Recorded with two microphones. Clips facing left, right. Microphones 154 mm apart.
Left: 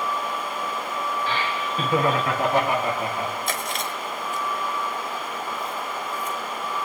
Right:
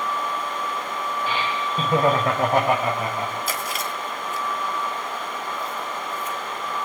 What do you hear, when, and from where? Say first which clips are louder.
1.3 s laughter: right 1 dB; 15° right (ahead or behind), 2 m; by 3.4 s 65° right (ahead or behind), 3.5 m
3.5 s chewing: even; 5° right (ahead or behind), 1.6 m